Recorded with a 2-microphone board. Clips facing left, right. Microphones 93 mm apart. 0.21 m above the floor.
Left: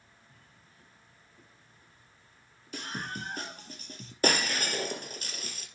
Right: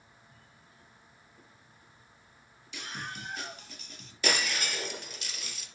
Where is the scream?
45° left (ahead or behind), 4 m; by 4.1 s 40° left (ahead or behind), 5 m.